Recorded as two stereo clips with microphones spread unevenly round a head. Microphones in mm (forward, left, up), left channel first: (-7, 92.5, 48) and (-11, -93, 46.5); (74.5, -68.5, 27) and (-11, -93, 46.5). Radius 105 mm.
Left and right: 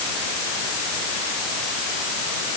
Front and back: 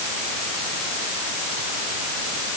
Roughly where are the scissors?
I don't hear scissors.